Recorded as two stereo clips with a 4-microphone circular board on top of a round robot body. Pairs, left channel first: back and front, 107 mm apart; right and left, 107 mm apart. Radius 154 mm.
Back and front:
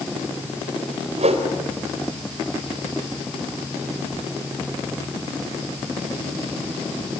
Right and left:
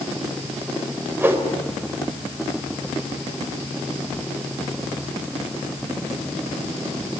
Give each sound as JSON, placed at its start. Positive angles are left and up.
{"t": 1.1, "sound": "a whoosh", "azimuth_deg": 20, "distance_m": 4.0}